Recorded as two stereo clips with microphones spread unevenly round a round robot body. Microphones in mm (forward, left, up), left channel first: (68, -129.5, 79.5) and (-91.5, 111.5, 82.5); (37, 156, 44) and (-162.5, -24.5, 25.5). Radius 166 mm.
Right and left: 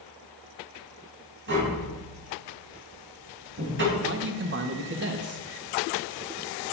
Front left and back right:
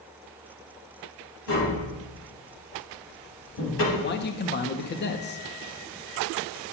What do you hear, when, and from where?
1.5 s tapping: 75° left, 4.5 m
3.9 s a man speaking: 85° left, 0.9 m